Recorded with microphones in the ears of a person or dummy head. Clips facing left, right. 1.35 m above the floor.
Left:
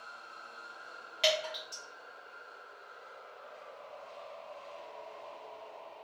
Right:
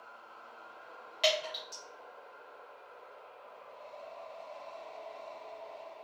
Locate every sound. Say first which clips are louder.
1.2 s dripping: even; centre (ahead or behind), 1.0 m